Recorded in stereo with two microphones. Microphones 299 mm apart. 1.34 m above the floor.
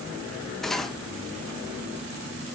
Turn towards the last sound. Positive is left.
turn(degrees=0)  # may be behind; listen again after turning